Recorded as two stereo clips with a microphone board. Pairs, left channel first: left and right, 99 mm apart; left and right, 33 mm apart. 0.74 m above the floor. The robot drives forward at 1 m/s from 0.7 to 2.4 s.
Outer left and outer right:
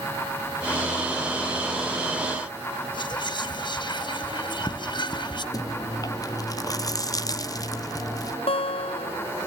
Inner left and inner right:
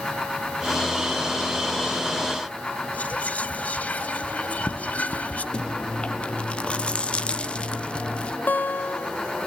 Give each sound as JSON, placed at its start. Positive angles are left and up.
{"t": 2.9, "sound": "whispering", "side_deg": 45, "distance_m": 1.0}
{"t": 5.5, "sound": "chewing", "side_deg": 35, "distance_m": 0.7}
{"t": 8.5, "sound": "a guitar", "side_deg": 65, "distance_m": 0.6}